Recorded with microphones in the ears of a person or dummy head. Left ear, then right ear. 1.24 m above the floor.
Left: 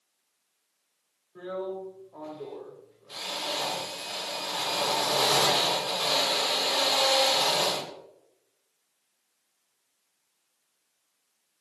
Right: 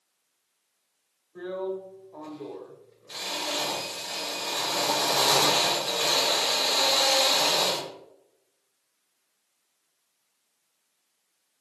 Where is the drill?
15° right (ahead or behind), 0.5 m.